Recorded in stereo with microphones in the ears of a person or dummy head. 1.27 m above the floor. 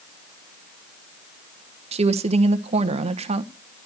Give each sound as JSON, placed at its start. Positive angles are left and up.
{"t": 1.9, "sound": "a woman speaking", "side_deg": -30, "distance_m": 1.2}